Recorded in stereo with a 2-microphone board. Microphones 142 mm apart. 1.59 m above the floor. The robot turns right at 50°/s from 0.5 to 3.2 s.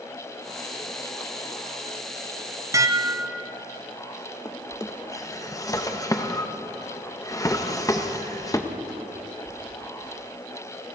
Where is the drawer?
25° left (ahead or behind), 0.9 m.